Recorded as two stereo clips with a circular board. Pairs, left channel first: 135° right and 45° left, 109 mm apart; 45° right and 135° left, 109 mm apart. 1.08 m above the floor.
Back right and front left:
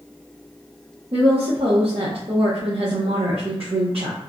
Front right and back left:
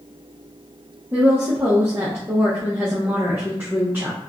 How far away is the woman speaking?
About 0.7 m.